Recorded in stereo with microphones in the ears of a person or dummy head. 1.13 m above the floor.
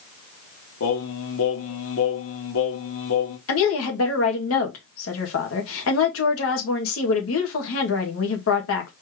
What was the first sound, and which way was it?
Singing, 75° left (ahead or behind).